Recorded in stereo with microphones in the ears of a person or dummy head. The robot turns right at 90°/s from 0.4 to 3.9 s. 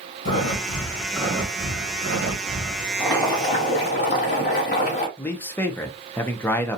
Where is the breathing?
115° left, 1.4 m; by 2.9 s 20° right, 1.4 m.